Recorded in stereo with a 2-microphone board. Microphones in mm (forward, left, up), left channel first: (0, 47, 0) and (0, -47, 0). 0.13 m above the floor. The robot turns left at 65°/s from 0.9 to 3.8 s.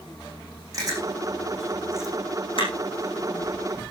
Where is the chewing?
40° right (ahead or behind), 6 m; by 3.8 s 30° left (ahead or behind), 6 m.